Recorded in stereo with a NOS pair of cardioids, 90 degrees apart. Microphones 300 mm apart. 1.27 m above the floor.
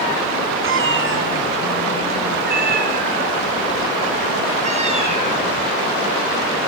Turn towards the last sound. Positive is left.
turn(degrees=-20)